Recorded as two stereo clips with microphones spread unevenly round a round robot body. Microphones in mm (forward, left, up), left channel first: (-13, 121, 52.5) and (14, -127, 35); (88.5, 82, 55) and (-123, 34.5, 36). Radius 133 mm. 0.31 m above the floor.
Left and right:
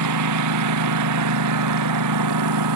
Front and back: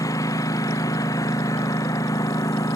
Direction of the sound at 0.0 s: 65° right.